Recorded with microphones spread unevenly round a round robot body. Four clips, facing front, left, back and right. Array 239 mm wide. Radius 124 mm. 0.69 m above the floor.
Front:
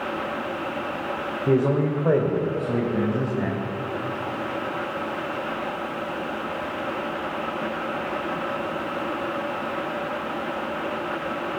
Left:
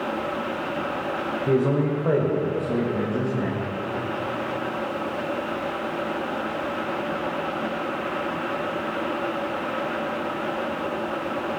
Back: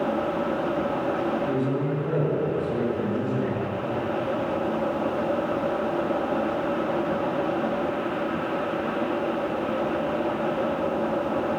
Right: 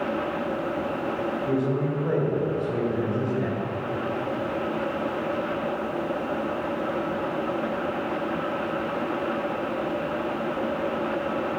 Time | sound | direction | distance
1.5 | a man speaking | 35° left | 2 m